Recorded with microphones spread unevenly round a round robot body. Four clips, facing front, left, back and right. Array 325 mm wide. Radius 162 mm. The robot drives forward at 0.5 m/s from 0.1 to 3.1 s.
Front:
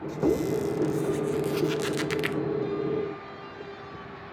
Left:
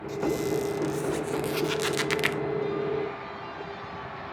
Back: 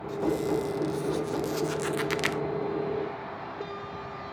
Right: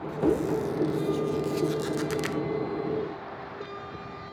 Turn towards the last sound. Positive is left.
turn(degrees=160)